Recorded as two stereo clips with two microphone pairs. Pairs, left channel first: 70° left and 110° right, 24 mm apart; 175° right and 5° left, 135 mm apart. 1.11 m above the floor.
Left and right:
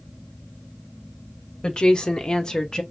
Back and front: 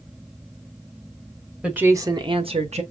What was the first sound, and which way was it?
A woman speaking, 90° left.